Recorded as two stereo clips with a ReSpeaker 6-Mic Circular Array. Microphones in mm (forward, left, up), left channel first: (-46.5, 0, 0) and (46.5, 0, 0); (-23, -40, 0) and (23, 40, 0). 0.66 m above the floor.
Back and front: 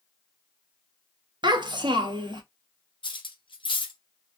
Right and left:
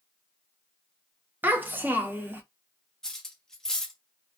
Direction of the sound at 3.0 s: 155° left.